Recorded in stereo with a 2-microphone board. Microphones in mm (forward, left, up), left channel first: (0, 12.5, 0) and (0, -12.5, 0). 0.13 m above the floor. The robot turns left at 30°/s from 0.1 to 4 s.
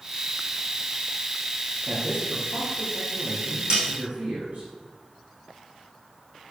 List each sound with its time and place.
1.9 s a man speaking: 35° right, 4 m; by 4.7 s 95° right, 4 m
3.7 s a snare drum: 40° right (ahead or behind), 5 m; by 3.8 s 45° right (ahead or behind), 5 m